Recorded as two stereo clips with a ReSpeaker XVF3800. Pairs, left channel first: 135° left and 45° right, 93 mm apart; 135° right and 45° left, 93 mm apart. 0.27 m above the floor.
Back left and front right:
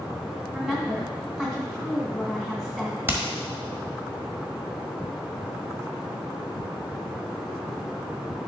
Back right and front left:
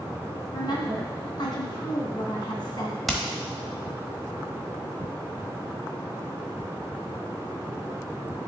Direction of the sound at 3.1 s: 45° right.